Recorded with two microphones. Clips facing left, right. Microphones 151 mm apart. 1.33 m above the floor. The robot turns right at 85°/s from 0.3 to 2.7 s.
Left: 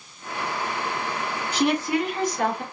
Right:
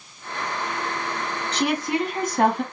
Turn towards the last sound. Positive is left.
turn(degrees=-90)